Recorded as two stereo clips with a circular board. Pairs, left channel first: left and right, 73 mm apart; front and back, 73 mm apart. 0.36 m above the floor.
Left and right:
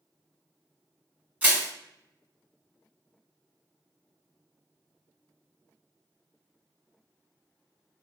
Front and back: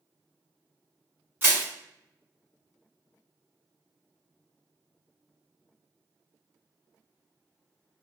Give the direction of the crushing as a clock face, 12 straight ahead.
5 o'clock.